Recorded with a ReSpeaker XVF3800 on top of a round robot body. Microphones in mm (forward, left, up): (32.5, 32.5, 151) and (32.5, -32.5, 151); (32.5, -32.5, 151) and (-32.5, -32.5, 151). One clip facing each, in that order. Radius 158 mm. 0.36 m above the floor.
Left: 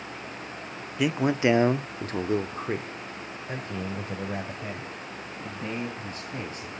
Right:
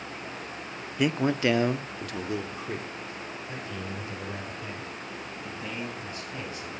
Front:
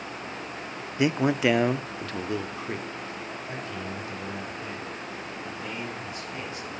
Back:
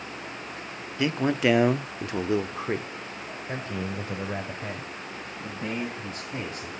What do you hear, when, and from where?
1.0 s a man speaking: 5° left, 0.8 m; by 6.7 s 130° left, 4 m